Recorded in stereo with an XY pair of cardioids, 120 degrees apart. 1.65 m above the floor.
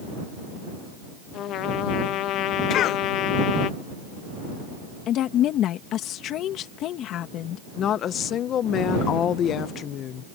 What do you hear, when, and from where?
1.3 s a trumpet: 70° left
2.7 s a cough: 65° left
5.1 s a woman speaking: 65° left
7.8 s a woman speaking: 55° left